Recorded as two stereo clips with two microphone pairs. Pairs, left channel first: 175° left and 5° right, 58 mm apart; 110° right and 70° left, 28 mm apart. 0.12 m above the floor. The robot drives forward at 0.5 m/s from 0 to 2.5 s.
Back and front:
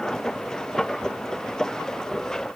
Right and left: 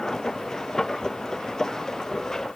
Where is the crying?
I don't hear crying.